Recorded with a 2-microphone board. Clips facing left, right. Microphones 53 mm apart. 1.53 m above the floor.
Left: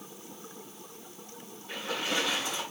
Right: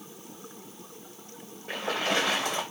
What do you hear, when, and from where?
1.7 s a splash: 55° right (ahead or behind), 2 m